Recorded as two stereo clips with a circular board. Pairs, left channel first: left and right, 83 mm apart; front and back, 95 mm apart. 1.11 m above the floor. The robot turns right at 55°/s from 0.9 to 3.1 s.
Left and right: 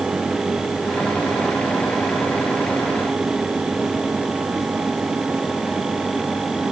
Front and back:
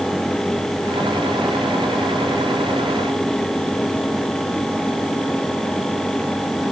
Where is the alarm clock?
No alarm clock in this recording.